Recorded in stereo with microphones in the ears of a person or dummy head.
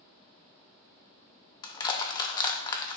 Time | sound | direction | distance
1.6 | crushing | 25° left (ahead or behind) | 0.6 m